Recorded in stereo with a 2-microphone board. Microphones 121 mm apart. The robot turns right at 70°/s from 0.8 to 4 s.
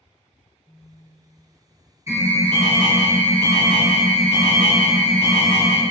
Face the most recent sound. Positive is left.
turn(degrees=-10)